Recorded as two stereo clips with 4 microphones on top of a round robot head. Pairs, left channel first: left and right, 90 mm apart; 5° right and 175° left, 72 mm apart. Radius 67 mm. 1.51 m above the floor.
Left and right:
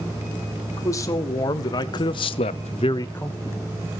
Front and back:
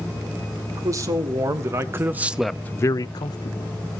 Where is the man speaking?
140° left, 3 m; by 3.7 s 5° right, 1.6 m.